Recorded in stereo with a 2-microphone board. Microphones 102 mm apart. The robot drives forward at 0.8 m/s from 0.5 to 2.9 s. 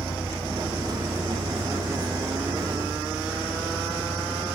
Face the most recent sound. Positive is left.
turn(degrees=20)  # may be behind; listen again after turning